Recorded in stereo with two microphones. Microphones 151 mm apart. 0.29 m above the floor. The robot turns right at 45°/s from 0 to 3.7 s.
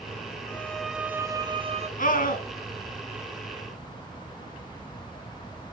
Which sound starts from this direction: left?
A scream, at 2.0 s.